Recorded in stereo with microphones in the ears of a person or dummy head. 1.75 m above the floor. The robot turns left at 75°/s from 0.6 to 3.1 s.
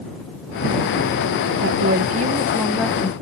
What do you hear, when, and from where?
1.6 s a woman speaking: 95° right; by 3.1 s 155° left